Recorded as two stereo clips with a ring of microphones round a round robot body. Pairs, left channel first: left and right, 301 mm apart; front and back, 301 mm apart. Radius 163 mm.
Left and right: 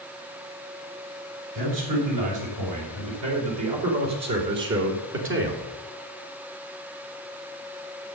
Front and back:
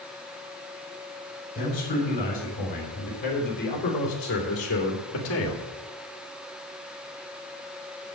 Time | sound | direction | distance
1.6 | a man speaking | 70° right | 5 m